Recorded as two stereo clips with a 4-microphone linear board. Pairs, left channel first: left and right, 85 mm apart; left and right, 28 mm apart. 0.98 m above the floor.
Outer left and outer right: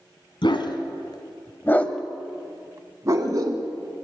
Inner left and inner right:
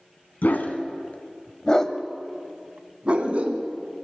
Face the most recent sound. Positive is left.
turn(degrees=-45)  # may be behind; listen again after turning